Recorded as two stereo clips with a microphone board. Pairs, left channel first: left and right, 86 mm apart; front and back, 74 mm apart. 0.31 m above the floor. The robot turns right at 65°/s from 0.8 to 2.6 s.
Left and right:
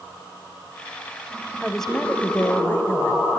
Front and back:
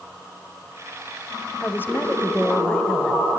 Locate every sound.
1.6 s a woman speaking: straight ahead, 1.5 m; by 3.3 s 65° left, 1.5 m